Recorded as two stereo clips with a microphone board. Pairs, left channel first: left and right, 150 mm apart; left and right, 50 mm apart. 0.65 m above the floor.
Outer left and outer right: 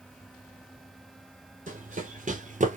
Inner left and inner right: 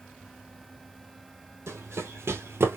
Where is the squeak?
I don't hear a squeak.